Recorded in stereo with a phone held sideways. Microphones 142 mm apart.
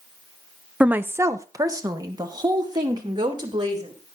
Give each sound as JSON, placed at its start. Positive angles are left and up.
{"t": 0.8, "sound": "a woman speaking", "side_deg": -10, "distance_m": 0.6}